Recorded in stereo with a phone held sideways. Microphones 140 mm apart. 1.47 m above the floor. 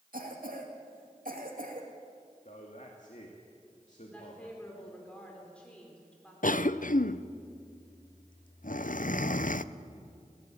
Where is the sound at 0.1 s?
85° right, 2.5 m.